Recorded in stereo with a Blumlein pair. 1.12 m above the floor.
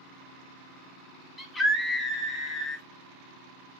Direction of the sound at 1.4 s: 15° left.